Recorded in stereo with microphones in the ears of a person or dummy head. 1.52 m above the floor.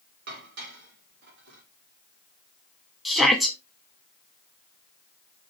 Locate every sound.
0.3 s dishes clattering: 55° right (ahead or behind), 3.5 m
3.0 s a shout: 5° right (ahead or behind), 1.3 m